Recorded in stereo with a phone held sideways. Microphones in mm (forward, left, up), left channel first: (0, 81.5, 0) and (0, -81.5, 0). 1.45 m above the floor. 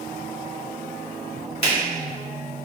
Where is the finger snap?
40° left (ahead or behind), 1.3 m.